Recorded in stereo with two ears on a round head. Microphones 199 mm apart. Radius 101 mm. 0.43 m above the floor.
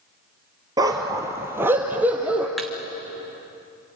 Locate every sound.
0.8 s a dog barking: 15° right (ahead or behind), 2 m; by 2.5 s 5° right (ahead or behind), 3 m
2.6 s a thud: centre (ahead or behind), 1.8 m